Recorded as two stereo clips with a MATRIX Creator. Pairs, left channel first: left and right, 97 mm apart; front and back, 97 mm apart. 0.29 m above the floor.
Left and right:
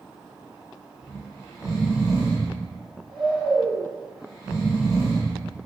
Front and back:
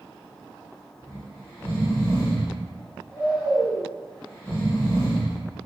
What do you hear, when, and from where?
1.0 s snoring: 5° left, 1.4 m